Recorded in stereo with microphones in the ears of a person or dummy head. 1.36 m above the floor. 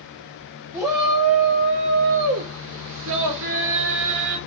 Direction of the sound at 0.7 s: 10° right (ahead or behind).